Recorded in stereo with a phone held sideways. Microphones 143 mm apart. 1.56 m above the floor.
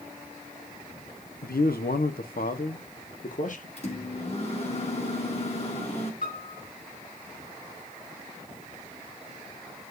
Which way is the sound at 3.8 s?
45° left (ahead or behind).